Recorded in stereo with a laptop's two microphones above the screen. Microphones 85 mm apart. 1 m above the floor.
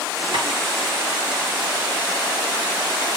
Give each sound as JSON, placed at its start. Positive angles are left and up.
{"t": 0.3, "sound": "tapping", "side_deg": -70, "distance_m": 6.5}